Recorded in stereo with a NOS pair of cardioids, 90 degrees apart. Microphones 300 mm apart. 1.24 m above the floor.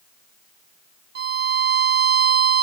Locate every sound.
1.1 s a violin: 35° right